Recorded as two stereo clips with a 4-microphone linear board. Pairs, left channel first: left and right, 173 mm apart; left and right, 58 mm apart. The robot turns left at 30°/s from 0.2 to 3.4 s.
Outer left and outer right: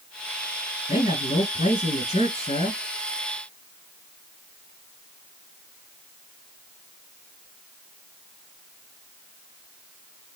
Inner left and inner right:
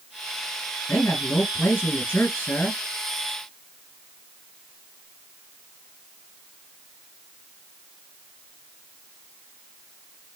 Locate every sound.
0.9 s a man speaking: 110° left, 2 m; by 2.8 s 50° left, 2 m